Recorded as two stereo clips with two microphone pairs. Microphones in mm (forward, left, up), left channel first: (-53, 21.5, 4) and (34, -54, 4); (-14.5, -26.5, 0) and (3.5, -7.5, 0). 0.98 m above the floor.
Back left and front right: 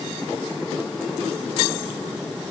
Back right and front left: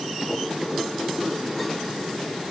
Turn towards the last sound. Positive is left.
No sound to turn to.